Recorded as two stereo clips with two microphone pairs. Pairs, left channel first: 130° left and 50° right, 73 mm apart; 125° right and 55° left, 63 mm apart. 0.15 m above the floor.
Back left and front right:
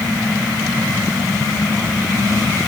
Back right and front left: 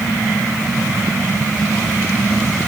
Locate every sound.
Only background noise.